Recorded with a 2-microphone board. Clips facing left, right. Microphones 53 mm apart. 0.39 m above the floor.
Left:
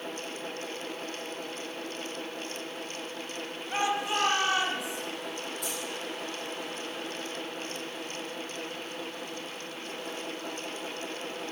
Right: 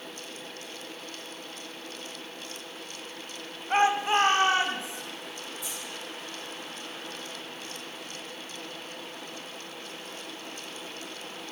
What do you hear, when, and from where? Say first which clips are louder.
3.7 s a shout: right 6 dB; 35° right (ahead or behind), 1.7 m; by 5.0 s 30° right (ahead or behind), 3.5 m
5.6 s keys jangling: left 3 dB; 60° left (ahead or behind), 8 m